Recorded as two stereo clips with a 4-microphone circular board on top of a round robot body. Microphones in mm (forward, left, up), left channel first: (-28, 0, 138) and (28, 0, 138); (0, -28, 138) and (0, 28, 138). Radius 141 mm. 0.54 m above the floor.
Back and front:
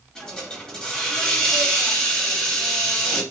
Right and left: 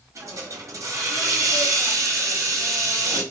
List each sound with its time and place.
0.1 s a hiss: 100° left, 1.7 m